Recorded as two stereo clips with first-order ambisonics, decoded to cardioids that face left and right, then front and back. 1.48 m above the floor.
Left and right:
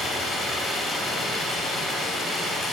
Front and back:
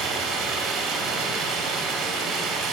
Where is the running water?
160° left, 2 m.